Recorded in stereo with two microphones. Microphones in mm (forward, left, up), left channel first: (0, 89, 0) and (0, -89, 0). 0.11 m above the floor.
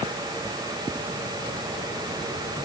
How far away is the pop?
No pop in this recording.